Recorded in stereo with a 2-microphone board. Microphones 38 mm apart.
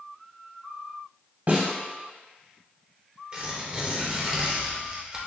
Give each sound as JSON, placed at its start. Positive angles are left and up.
{"t": 1.5, "sound": "a snare drum", "side_deg": -50, "distance_m": 1.3}
{"t": 3.3, "sound": "tearing paper", "side_deg": -30, "distance_m": 0.9}